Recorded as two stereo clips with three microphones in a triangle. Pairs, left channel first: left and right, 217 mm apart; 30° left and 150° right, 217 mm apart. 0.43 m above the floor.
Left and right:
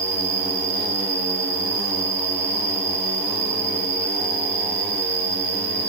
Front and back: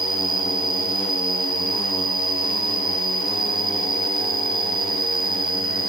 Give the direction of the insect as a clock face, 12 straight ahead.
2 o'clock.